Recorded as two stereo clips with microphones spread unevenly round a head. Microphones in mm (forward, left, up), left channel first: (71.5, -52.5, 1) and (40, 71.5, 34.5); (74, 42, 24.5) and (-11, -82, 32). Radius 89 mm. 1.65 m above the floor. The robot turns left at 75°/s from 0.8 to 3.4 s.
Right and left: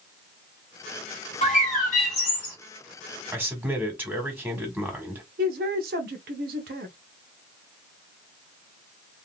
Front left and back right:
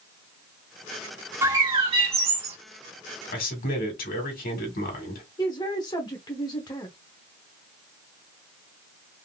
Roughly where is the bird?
Ahead right.